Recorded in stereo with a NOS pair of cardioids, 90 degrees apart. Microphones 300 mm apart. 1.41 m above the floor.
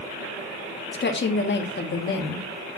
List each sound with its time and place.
0.9 s a woman speaking: 35° left, 2.5 m